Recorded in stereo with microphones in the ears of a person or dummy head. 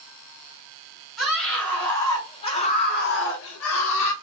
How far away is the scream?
About 1.3 m.